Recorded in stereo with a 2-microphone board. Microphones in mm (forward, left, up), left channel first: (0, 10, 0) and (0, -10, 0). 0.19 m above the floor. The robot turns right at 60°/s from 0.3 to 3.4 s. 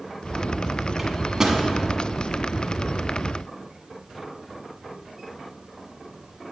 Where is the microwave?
15° right (ahead or behind), 1.0 m; by 1.6 s 35° right (ahead or behind), 1.0 m.